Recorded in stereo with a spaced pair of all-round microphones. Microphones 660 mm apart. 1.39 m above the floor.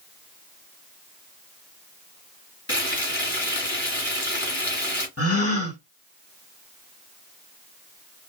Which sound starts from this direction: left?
A gasp, at 5.2 s.